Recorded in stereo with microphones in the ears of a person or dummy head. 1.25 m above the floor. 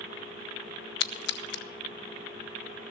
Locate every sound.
1.0 s a splash: 50° left (ahead or behind), 0.6 m